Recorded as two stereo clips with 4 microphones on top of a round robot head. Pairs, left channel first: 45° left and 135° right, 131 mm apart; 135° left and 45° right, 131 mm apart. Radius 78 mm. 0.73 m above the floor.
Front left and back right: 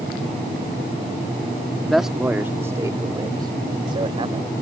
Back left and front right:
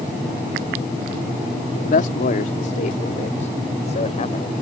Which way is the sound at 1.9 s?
130° left.